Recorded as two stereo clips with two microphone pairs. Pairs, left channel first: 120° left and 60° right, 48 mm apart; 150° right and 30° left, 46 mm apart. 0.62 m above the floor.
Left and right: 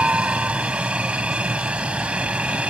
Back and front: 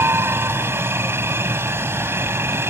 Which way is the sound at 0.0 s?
5° left.